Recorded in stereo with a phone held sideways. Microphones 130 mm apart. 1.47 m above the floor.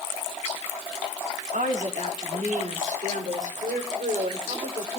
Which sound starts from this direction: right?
A woman speaking, at 1.5 s.